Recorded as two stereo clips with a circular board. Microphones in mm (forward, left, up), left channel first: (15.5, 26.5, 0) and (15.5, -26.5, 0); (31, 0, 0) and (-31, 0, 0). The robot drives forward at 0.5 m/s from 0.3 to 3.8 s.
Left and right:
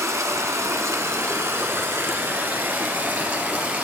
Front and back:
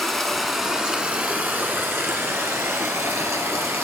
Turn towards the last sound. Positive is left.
turn(degrees=-150)